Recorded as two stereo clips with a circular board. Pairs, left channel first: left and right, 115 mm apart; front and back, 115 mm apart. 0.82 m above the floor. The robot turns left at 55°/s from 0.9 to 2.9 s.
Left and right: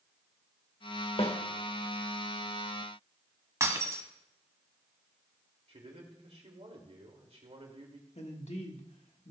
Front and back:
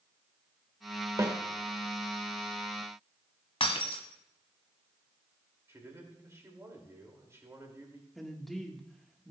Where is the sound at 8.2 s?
90° left, 1.6 m.